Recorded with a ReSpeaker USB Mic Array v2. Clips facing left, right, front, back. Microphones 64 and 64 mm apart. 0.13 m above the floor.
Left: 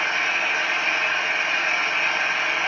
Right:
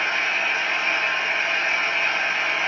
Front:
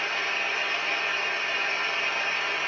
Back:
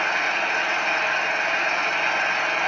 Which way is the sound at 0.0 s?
165° left.